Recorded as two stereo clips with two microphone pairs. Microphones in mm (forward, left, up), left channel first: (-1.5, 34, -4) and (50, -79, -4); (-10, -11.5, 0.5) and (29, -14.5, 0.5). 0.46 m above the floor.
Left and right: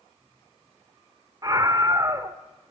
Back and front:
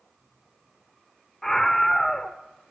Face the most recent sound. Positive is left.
turn(degrees=-105)